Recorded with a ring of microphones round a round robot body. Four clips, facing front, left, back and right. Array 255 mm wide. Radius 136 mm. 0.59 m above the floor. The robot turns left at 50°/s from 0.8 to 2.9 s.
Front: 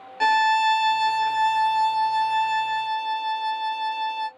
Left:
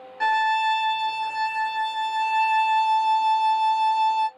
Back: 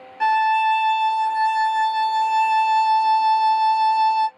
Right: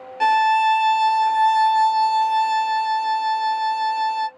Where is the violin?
50° right, 0.7 m; by 4.3 s 155° right, 0.7 m.